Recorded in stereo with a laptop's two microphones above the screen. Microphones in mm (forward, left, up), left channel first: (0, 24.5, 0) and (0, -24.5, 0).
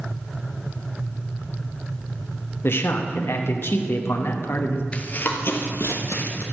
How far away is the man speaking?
About 0.9 m.